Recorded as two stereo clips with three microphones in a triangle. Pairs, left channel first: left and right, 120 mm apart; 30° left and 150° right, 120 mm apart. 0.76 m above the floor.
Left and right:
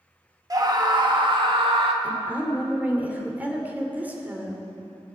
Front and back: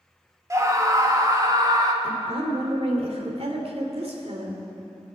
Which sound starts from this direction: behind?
A woman speaking, at 2.0 s.